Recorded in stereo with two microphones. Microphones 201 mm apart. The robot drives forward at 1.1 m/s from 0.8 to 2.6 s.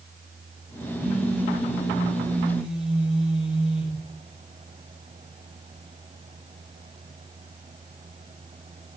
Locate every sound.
1.0 s a phone buzzing: 5° right (ahead or behind), 7 m